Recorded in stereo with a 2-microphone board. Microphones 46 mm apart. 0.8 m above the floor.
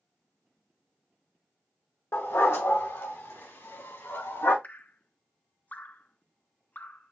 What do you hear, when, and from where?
2.1 s a dog barking: 70° left (ahead or behind), 1.4 m; by 4.5 s 85° left, 3.5 m
4.6 s dripping: 40° left (ahead or behind), 0.5 m